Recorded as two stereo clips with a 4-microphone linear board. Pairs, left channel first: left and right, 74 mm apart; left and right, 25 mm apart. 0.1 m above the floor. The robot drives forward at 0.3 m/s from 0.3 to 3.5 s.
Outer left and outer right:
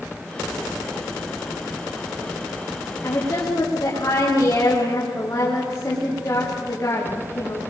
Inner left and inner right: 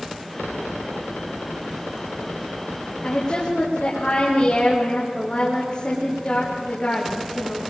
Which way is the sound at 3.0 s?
35° left (ahead or behind).